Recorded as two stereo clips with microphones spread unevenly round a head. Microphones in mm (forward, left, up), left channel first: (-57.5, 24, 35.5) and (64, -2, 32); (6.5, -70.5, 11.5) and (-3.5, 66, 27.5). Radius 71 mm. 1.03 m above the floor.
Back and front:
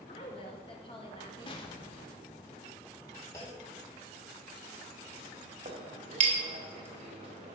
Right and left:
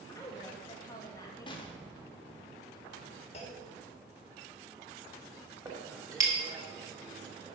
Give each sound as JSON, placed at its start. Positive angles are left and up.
{"t": 0.1, "sound": "a woman speaking", "azimuth_deg": -145, "distance_m": 1.9}
{"t": 1.5, "sound": "an explosion", "azimuth_deg": -140, "distance_m": 1.2}
{"t": 3.3, "sound": "a clunk", "azimuth_deg": -125, "distance_m": 2.5}
{"t": 5.7, "sound": "a clink", "azimuth_deg": 30, "distance_m": 2.5}